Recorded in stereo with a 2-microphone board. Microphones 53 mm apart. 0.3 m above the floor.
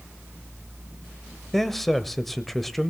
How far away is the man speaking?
About 1.0 m.